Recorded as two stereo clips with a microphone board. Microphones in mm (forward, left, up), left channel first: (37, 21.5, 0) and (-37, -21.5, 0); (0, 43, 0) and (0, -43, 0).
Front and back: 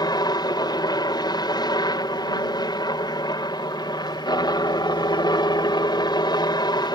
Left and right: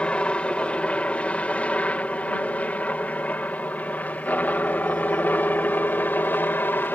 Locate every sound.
0.0 s a helicopter: 15° left; by 7.0 s 30° left